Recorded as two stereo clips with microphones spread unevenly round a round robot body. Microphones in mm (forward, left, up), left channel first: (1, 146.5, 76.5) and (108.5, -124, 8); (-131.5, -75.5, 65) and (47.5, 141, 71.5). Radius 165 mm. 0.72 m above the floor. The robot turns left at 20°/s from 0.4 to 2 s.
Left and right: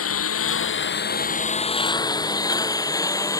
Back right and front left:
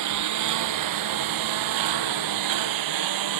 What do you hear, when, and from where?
0.0 s a lawn mower: 70° left; by 3.4 s 35° left